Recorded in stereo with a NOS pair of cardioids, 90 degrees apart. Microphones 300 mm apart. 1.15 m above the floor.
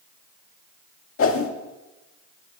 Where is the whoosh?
45° left, 1.9 m.